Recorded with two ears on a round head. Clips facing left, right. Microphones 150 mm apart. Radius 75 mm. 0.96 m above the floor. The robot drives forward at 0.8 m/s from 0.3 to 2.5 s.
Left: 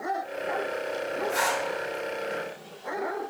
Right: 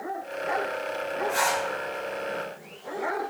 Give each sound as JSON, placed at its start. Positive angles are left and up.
{"t": 1.3, "sound": "a zipper", "side_deg": 5, "distance_m": 2.0}